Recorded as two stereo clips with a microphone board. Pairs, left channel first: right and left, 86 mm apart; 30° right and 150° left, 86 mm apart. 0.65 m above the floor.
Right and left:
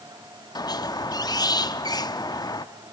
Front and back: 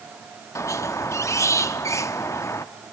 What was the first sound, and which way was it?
A squeak, 75° right.